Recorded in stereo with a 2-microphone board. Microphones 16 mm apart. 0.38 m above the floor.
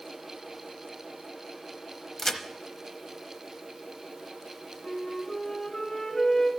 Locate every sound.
2.2 s a crack: 25° left (ahead or behind), 0.8 m
4.8 s a flute: 45° left (ahead or behind), 2.5 m